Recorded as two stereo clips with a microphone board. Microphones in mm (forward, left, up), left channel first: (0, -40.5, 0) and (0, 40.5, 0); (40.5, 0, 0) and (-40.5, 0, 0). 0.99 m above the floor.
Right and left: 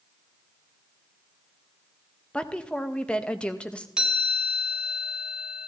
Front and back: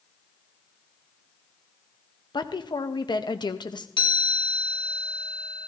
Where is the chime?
10° left, 2 m.